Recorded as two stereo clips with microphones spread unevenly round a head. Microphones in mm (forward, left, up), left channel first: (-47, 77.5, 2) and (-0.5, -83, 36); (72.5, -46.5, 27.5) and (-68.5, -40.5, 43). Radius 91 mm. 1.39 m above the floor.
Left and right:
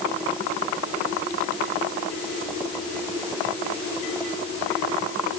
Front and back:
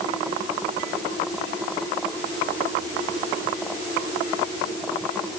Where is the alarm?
No alarm in this recording.